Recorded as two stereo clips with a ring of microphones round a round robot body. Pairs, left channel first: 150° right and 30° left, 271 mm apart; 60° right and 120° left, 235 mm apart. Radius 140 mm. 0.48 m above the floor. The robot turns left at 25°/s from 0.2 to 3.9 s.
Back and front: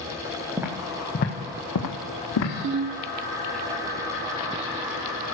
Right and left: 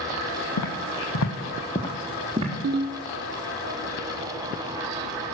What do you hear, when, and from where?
0.6 s footsteps: 50° right, 1.6 m; by 2.5 s 175° right, 1.9 m
2.6 s a ringtone: 75° left, 0.6 m; by 3.0 s 65° left, 0.6 m